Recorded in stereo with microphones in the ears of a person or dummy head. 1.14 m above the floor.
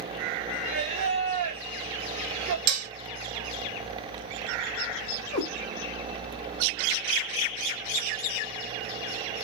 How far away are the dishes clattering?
About 0.6 m.